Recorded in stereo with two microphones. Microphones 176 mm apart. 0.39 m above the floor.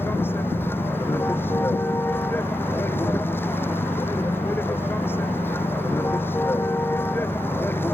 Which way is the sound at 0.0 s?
10° left (ahead or behind).